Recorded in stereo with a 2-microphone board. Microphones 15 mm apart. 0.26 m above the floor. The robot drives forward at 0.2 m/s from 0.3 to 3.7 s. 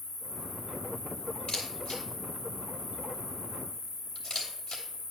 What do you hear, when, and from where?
0.0 s an insect: 5° left (ahead or behind), 5 m
1.5 s a camera shutter: 70° left (ahead or behind), 2.5 m; by 4.8 s 60° left (ahead or behind), 2.5 m